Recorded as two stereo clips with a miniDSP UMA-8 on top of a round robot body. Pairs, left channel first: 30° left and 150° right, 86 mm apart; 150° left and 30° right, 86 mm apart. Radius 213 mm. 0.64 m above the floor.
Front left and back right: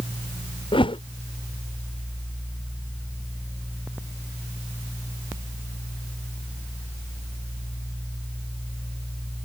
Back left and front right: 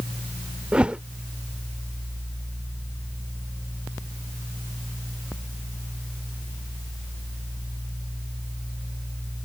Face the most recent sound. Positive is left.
turn(degrees=50)